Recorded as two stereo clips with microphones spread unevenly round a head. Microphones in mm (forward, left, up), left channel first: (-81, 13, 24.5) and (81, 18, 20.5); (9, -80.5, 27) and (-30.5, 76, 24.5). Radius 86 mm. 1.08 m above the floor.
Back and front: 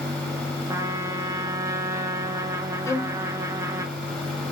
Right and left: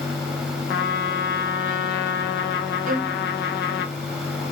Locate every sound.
0.7 s a trumpet: 70° right, 1.1 m
2.9 s a violin: 120° left, 0.8 m